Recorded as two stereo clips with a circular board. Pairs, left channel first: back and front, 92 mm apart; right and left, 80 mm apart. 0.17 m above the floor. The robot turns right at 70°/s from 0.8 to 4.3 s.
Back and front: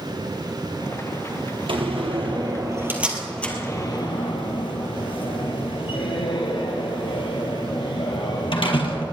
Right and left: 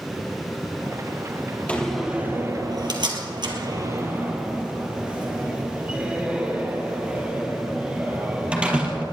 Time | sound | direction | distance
1.7 | a door slam | 15° right | 2.5 m